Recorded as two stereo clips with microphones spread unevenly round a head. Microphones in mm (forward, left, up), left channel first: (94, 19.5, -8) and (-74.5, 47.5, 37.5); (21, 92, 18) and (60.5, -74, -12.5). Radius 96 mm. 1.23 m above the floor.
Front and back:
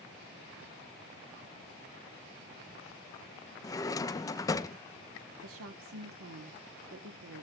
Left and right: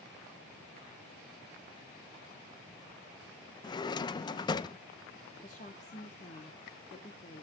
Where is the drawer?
70° left, 0.6 m.